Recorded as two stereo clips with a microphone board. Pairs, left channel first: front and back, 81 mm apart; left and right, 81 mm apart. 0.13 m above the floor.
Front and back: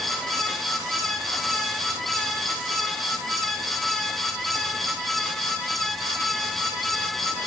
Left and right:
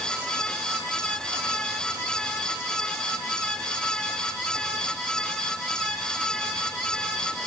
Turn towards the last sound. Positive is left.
No sound to turn to.